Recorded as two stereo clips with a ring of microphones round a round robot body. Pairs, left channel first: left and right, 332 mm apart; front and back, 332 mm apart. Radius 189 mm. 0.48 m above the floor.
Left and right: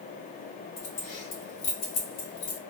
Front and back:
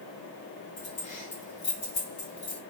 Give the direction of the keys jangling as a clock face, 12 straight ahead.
10 o'clock.